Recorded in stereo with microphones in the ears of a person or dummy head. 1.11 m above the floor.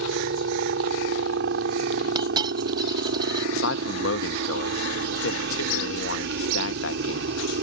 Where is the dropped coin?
25° right (ahead or behind).